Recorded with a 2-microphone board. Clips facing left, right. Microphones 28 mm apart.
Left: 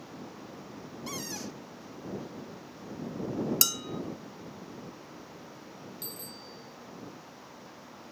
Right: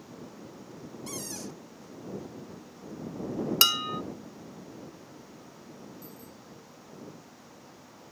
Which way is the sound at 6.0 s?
80° left.